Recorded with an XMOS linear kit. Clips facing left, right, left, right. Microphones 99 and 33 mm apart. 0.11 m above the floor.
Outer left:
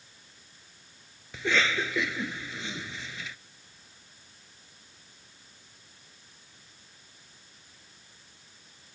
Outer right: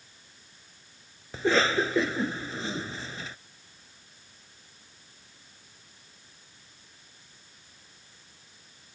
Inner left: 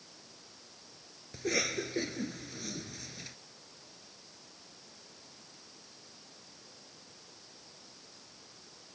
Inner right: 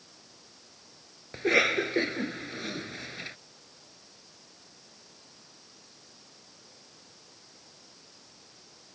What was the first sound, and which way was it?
A cough, 35° right (ahead or behind).